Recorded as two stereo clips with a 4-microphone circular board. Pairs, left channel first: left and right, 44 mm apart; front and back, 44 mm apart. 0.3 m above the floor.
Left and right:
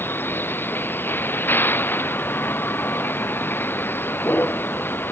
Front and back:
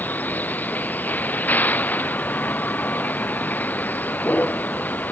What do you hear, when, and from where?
0.0 s a vehicle: 50° left